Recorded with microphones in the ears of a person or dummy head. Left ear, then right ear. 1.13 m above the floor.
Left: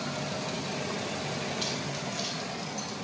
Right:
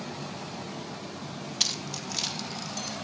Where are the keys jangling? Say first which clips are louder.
Right 3 dB; 75° right (ahead or behind), 0.5 m; by 2.9 s 80° right, 1.4 m.